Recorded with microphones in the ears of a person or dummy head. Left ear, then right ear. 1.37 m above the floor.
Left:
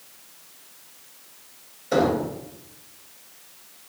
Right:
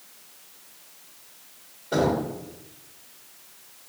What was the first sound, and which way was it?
Knocking, 75° left (ahead or behind).